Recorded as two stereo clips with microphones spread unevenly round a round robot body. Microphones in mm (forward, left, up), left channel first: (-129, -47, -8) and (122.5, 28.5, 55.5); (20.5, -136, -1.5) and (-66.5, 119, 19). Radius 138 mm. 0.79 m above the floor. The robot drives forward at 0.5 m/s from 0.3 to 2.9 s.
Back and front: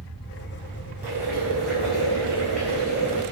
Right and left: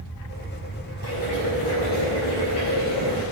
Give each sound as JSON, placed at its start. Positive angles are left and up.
{"t": 1.0, "sound": "boiling", "azimuth_deg": -65, "distance_m": 6.5}